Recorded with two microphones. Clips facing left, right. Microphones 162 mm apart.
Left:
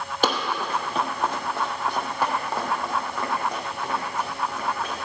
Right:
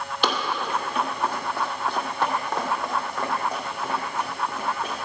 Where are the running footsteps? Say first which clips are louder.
Left 1 dB; 45° left (ahead or behind), 1.9 m; by 4.9 s 10° right (ahead or behind), 5 m.